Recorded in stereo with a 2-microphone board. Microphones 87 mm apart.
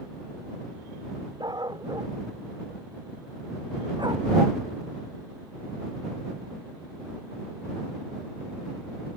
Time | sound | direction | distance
1.4 | a dog barking | 55° right (ahead or behind) | ?